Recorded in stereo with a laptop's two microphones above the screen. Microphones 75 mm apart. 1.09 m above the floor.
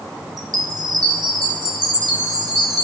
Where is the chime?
55° right (ahead or behind), 2.5 m.